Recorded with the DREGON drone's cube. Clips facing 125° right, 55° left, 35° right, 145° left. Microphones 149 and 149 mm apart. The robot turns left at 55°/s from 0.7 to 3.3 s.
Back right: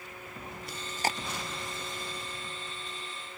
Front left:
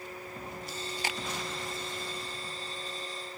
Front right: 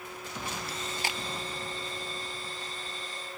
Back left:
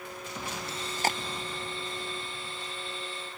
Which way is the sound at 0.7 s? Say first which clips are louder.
Back right 5 dB, back left 4 dB; 150° right.